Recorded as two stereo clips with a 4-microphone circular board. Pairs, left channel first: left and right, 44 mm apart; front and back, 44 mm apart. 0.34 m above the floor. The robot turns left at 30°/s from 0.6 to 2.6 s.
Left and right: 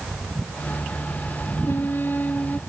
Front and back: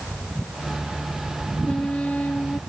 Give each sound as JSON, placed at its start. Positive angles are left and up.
{"t": 1.6, "sound": "a trumpet", "azimuth_deg": 65}